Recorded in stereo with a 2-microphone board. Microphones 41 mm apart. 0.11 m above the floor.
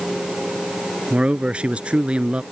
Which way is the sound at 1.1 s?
30° right (ahead or behind).